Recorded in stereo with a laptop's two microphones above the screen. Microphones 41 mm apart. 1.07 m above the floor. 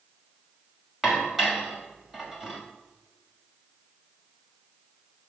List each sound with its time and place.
1.0 s dishes clattering: 10° right (ahead or behind), 4 m